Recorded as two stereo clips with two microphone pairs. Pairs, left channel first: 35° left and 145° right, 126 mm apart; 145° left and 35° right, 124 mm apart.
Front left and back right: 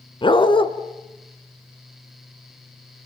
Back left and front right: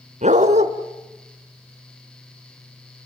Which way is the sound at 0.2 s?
15° right.